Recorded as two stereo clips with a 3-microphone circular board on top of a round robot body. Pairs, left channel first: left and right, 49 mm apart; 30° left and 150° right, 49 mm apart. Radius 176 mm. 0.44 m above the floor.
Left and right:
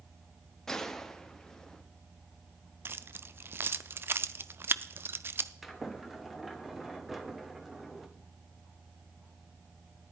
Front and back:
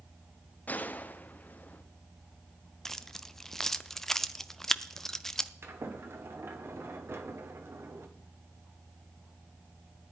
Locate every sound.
0.7 s a gunshot: 15° left, 1.3 m
2.9 s keys jangling: 50° right, 0.7 m
5.6 s a sliding door: 175° right, 1.9 m